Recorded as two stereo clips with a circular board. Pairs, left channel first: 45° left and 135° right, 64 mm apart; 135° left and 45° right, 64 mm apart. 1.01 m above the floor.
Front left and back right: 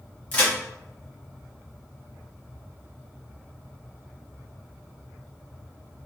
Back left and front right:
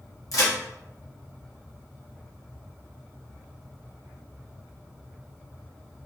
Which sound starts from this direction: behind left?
A crack, at 0.3 s.